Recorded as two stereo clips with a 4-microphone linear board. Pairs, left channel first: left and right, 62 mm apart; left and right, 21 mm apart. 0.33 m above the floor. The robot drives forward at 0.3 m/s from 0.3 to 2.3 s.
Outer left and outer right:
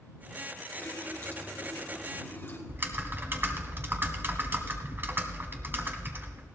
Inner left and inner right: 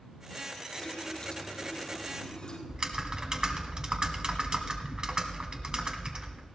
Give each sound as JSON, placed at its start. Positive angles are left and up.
{"t": 0.8, "sound": "a running tap", "side_deg": 30, "distance_m": 3.0}
{"t": 2.7, "sound": "typing on a keyboard", "side_deg": -40, "distance_m": 1.4}